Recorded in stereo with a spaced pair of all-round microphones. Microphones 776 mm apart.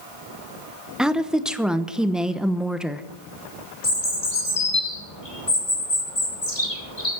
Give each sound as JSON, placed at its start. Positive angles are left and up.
{"t": 1.0, "sound": "a woman speaking", "side_deg": 0, "distance_m": 1.0}
{"t": 3.8, "sound": "a bird", "side_deg": 45, "distance_m": 3.0}